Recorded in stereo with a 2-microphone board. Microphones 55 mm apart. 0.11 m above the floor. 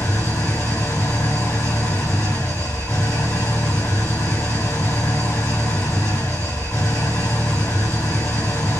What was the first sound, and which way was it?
An engine running, 65° left (ahead or behind).